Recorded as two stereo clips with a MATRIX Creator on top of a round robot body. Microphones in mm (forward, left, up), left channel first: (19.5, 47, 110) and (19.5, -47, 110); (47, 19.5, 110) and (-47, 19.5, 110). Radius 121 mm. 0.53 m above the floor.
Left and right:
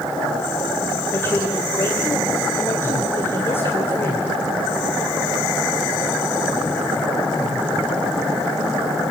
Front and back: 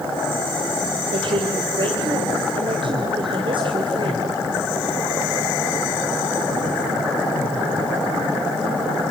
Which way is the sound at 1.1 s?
155° left.